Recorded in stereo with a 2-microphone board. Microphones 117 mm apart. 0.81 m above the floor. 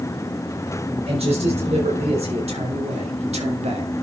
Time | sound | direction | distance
1.1 | a man speaking | 60° right (ahead or behind) | 4 m